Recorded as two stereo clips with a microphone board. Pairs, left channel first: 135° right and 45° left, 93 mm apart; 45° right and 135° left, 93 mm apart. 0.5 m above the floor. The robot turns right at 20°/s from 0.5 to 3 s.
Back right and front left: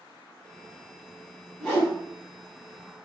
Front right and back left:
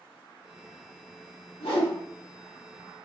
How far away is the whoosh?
About 1.7 m.